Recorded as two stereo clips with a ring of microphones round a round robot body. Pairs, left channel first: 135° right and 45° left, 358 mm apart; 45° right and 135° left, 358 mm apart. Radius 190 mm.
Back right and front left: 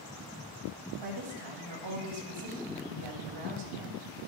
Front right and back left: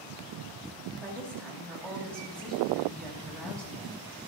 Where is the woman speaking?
40° left, 3.5 m.